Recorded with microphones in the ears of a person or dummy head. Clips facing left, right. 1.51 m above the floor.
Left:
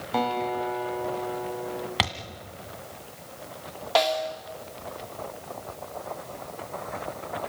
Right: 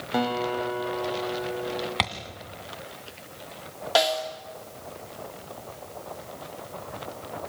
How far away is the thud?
About 2 m.